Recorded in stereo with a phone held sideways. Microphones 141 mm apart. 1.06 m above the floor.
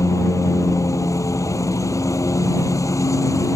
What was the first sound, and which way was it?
A lawn mower, 25° left (ahead or behind).